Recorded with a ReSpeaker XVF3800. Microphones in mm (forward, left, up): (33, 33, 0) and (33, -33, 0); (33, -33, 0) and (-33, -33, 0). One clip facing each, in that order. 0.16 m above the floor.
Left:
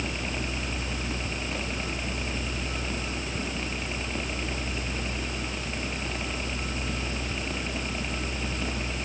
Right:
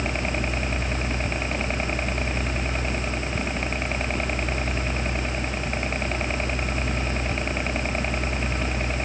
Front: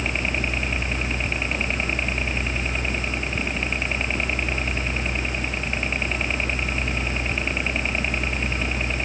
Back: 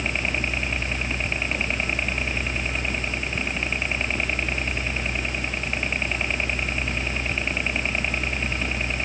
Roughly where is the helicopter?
Right.